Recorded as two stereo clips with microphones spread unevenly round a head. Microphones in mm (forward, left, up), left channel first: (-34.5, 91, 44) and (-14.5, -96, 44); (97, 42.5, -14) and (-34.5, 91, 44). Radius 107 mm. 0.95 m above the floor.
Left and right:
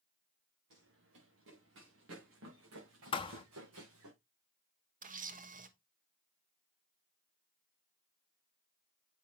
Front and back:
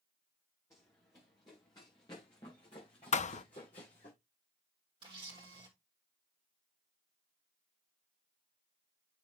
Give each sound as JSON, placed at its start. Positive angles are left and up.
{"t": 0.7, "sound": "running footsteps", "azimuth_deg": -100, "distance_m": 5.5}
{"t": 3.1, "sound": "a thud", "azimuth_deg": 30, "distance_m": 0.5}
{"t": 5.0, "sound": "a camera shutter", "azimuth_deg": -125, "distance_m": 1.2}